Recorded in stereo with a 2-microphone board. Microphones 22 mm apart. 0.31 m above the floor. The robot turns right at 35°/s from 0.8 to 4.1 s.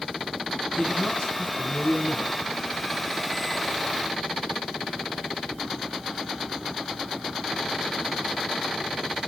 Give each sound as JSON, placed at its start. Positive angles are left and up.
{"t": 0.8, "sound": "a man speaking", "azimuth_deg": 35, "distance_m": 8.5}